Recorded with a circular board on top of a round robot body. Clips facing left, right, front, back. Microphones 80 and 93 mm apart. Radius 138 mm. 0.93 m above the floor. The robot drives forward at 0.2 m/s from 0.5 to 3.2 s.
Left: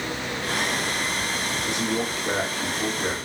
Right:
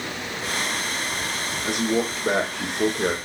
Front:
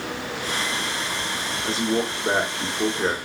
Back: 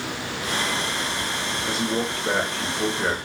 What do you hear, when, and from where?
1.6 s a man speaking: 65° right, 1.2 m; by 3.2 s 80° right, 1.1 m